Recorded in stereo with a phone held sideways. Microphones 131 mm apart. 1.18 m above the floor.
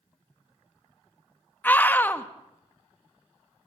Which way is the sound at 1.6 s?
15° left (ahead or behind).